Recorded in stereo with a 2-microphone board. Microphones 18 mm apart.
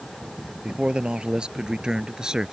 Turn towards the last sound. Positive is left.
turn(degrees=-35)  # may be behind; listen again after turning